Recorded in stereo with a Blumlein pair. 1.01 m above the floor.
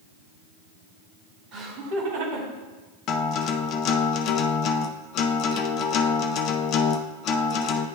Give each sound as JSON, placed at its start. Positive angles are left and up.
{"t": 1.5, "sound": "laughter", "azimuth_deg": -35, "distance_m": 1.5}
{"t": 3.1, "sound": "a guitar", "azimuth_deg": 35, "distance_m": 0.5}